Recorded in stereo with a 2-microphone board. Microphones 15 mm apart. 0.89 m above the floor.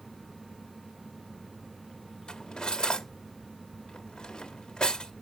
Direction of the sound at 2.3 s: 70° left (ahead or behind).